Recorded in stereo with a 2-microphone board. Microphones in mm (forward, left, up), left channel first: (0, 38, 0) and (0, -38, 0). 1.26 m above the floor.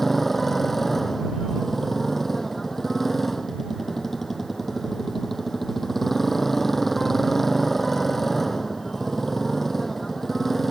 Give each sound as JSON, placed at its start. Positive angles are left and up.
{"t": 0.0, "sound": "a motorcycle", "side_deg": 0}